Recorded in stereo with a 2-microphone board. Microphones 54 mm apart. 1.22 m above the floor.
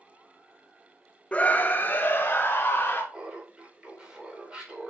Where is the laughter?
20° right (ahead or behind), 4 m.